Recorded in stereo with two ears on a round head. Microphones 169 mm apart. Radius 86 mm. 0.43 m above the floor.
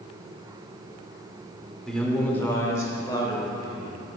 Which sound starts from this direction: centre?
A man speaking, at 1.9 s.